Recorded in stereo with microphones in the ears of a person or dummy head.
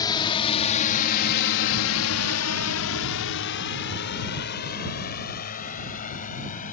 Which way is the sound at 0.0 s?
20° left (ahead or behind).